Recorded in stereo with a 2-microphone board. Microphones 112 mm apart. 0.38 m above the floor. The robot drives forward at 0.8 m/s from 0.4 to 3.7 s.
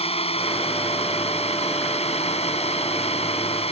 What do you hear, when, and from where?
0.0 s a drone: 65° left (ahead or behind)